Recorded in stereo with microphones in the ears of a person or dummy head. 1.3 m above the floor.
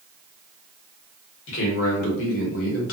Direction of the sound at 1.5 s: 70° left (ahead or behind).